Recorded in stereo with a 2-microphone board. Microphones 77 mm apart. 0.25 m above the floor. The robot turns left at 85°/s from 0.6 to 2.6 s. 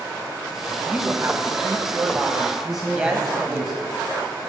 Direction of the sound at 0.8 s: 15° right.